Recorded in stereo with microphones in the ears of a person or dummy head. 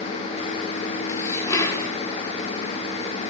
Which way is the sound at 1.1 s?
20° left (ahead or behind).